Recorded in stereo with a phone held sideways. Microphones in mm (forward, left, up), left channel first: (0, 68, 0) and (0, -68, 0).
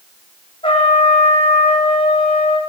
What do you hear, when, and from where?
0.6 s a trumpet: 40° left (ahead or behind), 8 m